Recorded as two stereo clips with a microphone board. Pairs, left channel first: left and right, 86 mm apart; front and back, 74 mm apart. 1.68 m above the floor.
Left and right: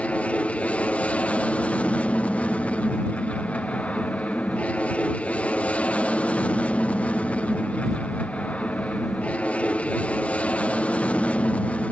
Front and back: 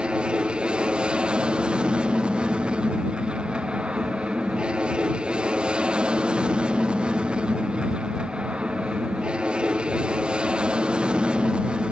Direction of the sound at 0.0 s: 130° left.